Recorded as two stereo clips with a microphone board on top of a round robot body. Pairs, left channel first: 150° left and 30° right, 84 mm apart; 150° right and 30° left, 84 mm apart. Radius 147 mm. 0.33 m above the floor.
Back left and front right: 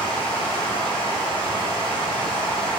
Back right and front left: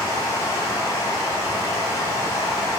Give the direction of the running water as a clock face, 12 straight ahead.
7 o'clock.